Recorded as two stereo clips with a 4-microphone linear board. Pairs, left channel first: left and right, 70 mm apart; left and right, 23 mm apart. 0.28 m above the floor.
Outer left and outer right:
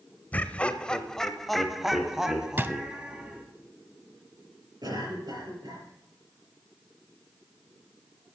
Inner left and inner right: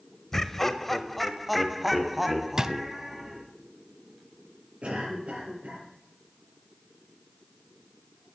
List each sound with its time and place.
0.3 s laughter: 20° left (ahead or behind), 0.9 m; by 3.4 s 15° right (ahead or behind), 1.8 m
2.6 s a drawer: 30° right (ahead or behind), 0.5 m
4.8 s a cough: 75° right (ahead or behind), 5 m